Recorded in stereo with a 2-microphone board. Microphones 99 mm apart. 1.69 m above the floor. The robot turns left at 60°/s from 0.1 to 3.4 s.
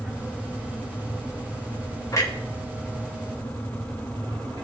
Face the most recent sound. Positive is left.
turn(degrees=-40)  # may be behind; listen again after turning